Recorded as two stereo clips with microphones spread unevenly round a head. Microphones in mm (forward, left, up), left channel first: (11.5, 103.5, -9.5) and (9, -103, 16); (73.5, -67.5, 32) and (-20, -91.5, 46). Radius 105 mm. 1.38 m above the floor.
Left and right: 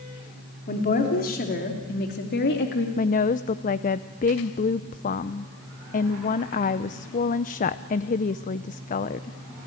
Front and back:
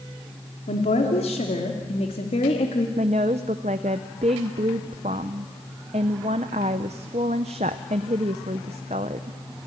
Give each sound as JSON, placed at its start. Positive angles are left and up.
{"t": 0.7, "sound": "a woman speaking", "azimuth_deg": 40, "distance_m": 3.0}
{"t": 3.0, "sound": "a woman speaking", "azimuth_deg": 145, "distance_m": 0.5}